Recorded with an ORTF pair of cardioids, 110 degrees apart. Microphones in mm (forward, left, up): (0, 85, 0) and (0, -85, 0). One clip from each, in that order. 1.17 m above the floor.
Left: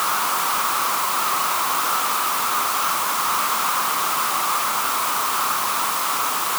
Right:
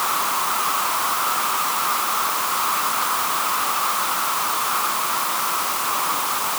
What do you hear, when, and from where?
Only background noise.